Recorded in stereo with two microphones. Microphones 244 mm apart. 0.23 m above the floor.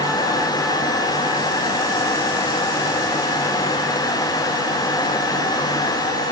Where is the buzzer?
I don't hear a buzzer.